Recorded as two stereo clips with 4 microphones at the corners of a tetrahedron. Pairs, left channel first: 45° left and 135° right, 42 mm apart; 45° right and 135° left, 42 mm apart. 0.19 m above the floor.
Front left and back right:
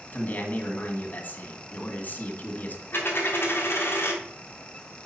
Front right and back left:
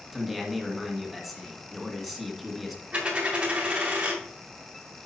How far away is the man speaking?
About 1.8 m.